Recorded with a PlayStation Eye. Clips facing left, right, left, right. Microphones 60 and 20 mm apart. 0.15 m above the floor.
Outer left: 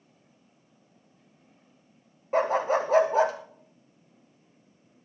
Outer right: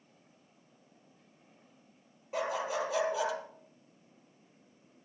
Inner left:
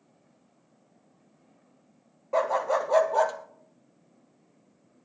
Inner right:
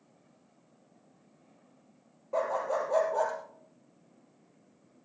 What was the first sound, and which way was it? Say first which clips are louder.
A dog barking: outer left 9 dB, inner left 5 dB; 40° left (ahead or behind).